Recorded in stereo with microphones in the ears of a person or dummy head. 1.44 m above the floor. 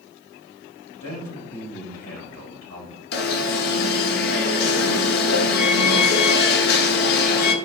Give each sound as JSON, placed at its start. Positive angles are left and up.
{"t": 1.0, "sound": "a man speaking", "side_deg": 70, "distance_m": 3.5}
{"t": 3.1, "sound": "an alarm", "side_deg": 55, "distance_m": 1.2}